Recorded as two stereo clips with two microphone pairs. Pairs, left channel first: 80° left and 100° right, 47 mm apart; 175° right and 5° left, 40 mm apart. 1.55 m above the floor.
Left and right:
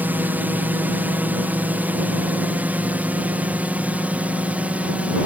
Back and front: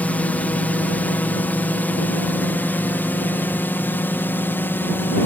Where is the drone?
135° right; by 5.3 s 160° right.